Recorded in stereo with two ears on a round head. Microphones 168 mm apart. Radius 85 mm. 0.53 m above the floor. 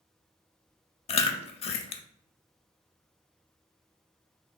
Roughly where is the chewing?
Left.